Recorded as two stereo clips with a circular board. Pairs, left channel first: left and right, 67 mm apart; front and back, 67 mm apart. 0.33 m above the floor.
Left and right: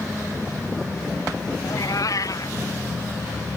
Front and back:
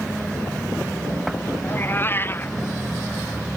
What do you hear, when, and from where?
1.6 s a cat meowing: 55° left